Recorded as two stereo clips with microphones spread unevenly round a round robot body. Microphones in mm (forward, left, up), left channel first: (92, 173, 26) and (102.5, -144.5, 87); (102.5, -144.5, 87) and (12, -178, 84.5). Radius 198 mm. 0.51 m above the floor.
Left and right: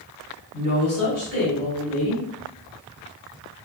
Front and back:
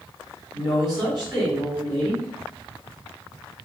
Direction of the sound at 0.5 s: 160° right.